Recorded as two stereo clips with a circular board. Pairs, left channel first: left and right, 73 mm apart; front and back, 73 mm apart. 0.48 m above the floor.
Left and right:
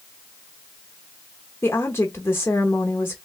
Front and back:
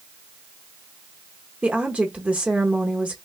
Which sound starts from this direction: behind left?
A woman speaking, at 1.6 s.